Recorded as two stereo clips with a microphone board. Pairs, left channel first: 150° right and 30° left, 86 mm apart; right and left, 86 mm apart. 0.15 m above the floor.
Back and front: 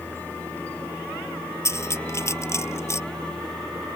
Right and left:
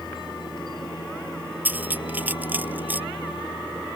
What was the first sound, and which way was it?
A helicopter, 80° right.